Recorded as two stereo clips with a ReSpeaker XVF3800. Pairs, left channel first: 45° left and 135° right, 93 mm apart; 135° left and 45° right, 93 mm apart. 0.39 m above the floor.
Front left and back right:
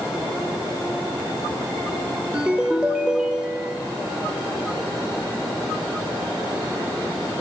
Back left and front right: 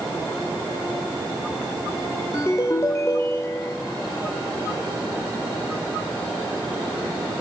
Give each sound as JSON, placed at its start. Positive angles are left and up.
{"t": 2.3, "sound": "a ringtone", "azimuth_deg": 155, "distance_m": 0.9}